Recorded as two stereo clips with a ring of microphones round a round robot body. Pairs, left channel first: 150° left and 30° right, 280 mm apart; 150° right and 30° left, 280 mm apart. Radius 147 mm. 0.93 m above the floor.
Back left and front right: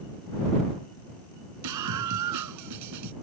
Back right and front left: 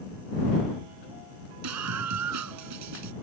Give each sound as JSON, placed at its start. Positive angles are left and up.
{"t": 1.6, "sound": "a scream", "azimuth_deg": -5}